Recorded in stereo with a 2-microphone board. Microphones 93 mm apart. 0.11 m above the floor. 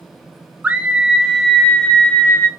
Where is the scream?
15° right (ahead or behind), 1.7 m; by 2.5 s 20° left (ahead or behind), 1.6 m.